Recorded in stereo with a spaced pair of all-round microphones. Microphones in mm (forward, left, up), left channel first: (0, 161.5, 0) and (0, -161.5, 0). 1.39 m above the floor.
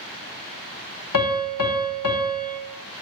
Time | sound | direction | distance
1.1 | a piano | 70° left (ahead or behind) | 1.2 m